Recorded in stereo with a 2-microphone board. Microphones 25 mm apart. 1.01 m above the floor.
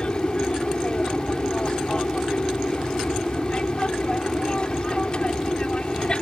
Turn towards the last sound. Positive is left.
turn(degrees=35)  # may be behind; listen again after turning